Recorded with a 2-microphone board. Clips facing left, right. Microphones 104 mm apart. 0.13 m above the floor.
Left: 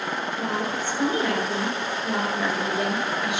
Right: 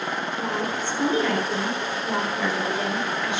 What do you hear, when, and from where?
0.4 s a woman speaking: 15° left (ahead or behind), 2 m